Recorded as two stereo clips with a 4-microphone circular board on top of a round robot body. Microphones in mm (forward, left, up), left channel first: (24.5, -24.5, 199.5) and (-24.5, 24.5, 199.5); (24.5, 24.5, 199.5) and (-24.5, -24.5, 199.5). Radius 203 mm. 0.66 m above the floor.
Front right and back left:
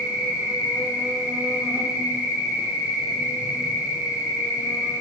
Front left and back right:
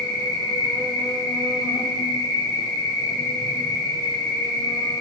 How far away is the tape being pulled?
No tape being pulled in this recording.